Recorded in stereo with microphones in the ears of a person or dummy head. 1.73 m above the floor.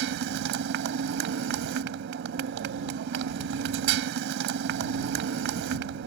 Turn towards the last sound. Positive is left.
turn(degrees=-65)  # may be behind; listen again after turning